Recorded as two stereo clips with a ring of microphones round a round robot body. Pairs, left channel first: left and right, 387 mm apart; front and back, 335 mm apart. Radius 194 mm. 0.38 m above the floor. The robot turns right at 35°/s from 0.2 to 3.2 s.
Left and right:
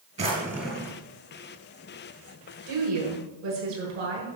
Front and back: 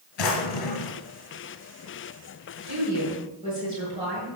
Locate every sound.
0.2 s a drawer: 15° right, 2 m; by 1.0 s 10° left, 2 m
2.7 s a woman speaking: 120° right, 6.5 m; by 4.3 s 105° right, 6.5 m